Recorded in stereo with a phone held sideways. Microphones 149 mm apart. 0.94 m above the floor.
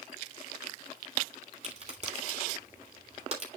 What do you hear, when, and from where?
1.6 s a crack: 45° right (ahead or behind), 3 m